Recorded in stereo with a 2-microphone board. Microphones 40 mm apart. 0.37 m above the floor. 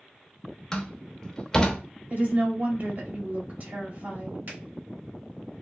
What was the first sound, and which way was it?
A door slam, 15° left (ahead or behind).